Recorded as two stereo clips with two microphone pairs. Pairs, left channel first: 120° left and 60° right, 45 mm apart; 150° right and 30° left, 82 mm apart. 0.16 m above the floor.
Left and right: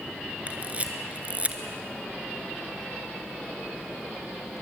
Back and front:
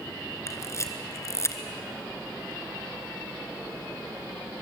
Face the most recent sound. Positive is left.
turn(degrees=-110)